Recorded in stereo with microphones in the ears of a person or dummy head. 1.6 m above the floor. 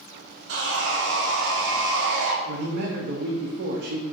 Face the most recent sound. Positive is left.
turn(degrees=-60)  # may be behind; listen again after turning